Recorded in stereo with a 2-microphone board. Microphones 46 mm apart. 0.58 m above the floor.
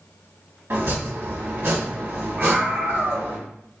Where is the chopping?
70° right (ahead or behind), 1.5 m.